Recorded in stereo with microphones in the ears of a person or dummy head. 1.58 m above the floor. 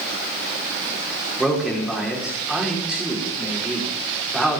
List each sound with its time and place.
1.4 s a man speaking: centre (ahead or behind), 5.5 m